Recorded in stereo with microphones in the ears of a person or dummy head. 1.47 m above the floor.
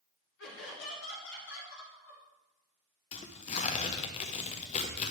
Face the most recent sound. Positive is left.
turn(degrees=35)  # may be behind; listen again after turning